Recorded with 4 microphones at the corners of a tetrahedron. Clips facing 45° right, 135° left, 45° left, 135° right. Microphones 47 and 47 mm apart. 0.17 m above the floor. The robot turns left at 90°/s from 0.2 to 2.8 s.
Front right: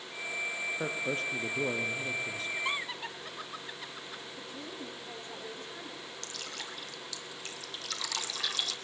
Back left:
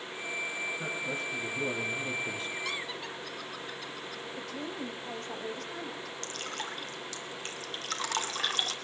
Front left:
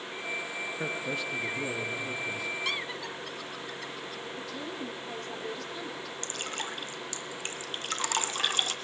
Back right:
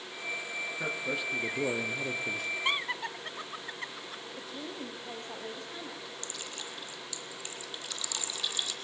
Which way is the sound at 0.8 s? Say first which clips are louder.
Front right 1 dB, even; 20° right.